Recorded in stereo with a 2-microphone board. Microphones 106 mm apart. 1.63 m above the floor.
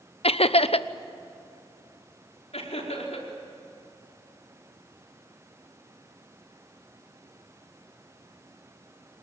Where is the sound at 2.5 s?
85° left, 5 m.